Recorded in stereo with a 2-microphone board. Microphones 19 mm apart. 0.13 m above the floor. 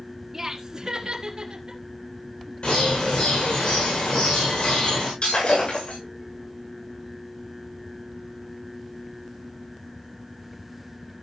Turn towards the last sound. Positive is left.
turn(degrees=65)  # may be behind; listen again after turning